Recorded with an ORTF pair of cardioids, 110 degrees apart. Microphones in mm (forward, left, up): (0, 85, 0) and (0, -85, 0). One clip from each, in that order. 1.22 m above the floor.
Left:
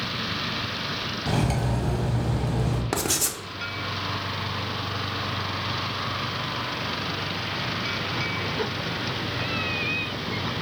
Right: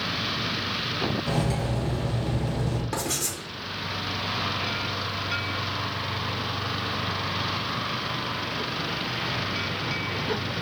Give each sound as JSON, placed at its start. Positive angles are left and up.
{"t": 1.3, "sound": "cutlery clinking", "azimuth_deg": 40, "distance_m": 1.2}
{"t": 2.9, "sound": "writing", "azimuth_deg": 45, "distance_m": 0.7}